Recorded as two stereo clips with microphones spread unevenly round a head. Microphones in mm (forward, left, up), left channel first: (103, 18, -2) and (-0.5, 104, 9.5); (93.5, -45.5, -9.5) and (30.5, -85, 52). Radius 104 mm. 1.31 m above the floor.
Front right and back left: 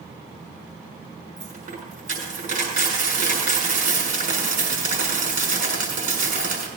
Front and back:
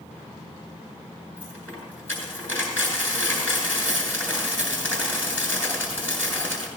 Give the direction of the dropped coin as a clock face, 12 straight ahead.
8 o'clock.